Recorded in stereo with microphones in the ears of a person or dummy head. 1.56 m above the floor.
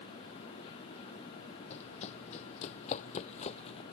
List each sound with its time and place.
1.7 s running footsteps: 35° left (ahead or behind); by 3.8 s 30° left (ahead or behind)